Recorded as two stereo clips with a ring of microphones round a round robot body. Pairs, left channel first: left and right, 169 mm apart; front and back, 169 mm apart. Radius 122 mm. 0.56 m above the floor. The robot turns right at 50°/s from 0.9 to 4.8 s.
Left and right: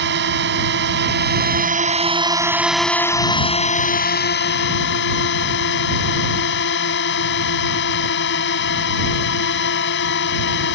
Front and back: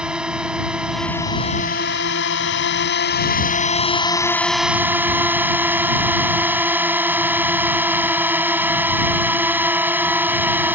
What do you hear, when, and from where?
0.0 s a drone: 95° right; by 10.8 s 100° left